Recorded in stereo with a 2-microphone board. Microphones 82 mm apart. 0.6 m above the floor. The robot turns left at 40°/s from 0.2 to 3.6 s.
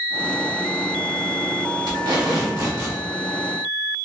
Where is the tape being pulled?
100° right, 0.9 m; by 3.0 s 145° right, 0.9 m.